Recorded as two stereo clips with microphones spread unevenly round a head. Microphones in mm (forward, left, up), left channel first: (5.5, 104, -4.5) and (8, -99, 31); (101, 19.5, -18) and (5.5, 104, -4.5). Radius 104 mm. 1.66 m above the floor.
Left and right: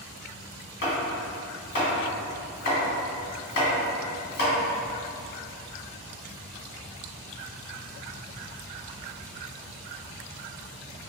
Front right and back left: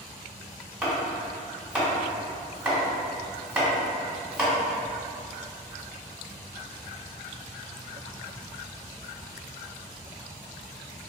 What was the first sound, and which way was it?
Chopping, 65° left.